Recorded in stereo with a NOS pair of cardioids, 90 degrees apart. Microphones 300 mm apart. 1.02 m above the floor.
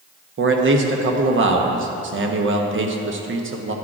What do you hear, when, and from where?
0.4 s a man speaking: 40° right, 1.1 m